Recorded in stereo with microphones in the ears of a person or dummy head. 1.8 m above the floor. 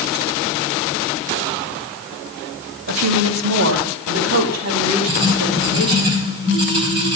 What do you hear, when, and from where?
2.9 s a woman speaking: 70° right (ahead or behind), 1.5 m; by 6.1 s 75° right (ahead or behind), 5.5 m
5.1 s writing: 30° right (ahead or behind), 4 m